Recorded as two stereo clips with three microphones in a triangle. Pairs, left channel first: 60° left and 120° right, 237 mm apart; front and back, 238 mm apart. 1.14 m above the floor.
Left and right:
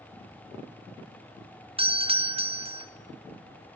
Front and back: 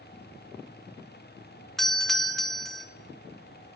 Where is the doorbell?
85° right, 1.0 m.